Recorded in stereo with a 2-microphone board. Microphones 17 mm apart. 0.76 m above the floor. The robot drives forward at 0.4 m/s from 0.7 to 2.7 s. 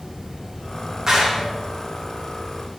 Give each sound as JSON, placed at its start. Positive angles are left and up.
{"t": 0.0, "sound": "running water", "side_deg": -75, "distance_m": 1.1}
{"t": 1.1, "sound": "a clap", "side_deg": -35, "distance_m": 0.6}